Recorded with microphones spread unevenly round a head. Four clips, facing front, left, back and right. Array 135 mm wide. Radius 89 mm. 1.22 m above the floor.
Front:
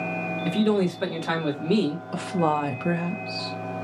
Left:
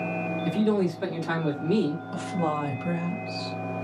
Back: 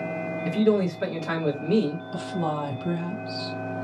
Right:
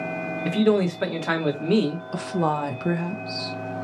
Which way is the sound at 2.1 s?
40° right.